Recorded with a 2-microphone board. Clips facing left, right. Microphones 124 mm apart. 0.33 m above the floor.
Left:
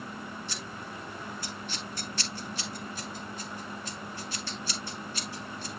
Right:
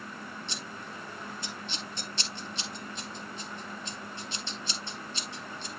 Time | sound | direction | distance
0.5 | scissors | 25° right (ahead or behind) | 2.0 m